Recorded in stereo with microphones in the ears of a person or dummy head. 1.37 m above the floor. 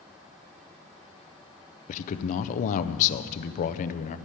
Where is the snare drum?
No snare drum in this recording.